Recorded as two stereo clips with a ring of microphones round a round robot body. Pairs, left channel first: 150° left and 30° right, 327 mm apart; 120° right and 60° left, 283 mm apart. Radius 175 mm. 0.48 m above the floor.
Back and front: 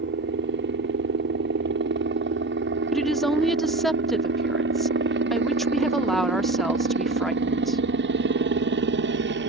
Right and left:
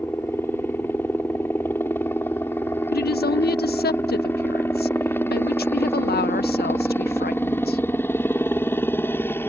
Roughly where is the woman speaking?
Behind right.